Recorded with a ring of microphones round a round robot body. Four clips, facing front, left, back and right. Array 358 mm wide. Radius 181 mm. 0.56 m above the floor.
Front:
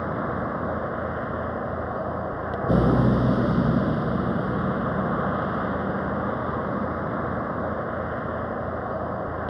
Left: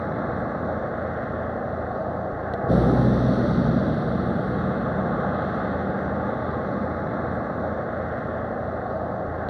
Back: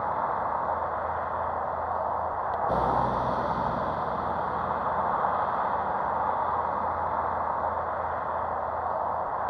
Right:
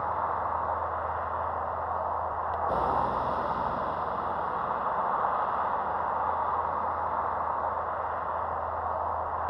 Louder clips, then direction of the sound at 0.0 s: Left 2 dB, even; 50° left.